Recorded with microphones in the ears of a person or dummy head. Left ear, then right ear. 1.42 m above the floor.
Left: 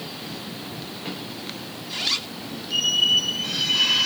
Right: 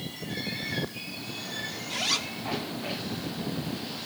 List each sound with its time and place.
1.9 s a zipper: 25° right (ahead or behind)